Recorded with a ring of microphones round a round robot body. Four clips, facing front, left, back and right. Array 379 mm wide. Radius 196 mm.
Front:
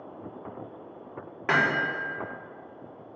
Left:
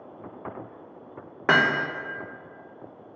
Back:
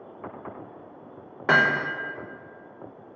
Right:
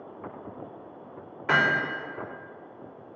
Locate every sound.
1.5 s hammering: 105° left, 1.6 m